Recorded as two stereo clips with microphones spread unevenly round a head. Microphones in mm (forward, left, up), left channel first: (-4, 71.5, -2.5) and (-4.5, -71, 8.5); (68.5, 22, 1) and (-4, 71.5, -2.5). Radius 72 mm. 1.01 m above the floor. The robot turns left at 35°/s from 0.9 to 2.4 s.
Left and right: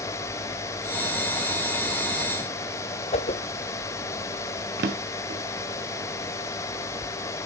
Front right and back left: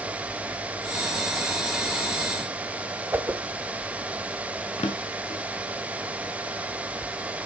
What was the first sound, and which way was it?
A whoosh, 85° left.